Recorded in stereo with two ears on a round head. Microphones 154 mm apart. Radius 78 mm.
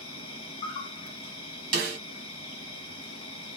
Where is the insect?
30° left (ahead or behind), 1.2 m.